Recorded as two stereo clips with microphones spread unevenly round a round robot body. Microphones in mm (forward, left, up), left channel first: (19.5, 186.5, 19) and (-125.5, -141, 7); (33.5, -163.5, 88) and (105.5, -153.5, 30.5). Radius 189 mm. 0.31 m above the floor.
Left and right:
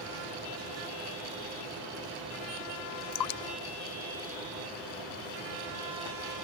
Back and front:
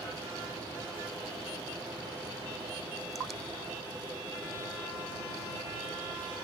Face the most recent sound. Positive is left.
turn(degrees=75)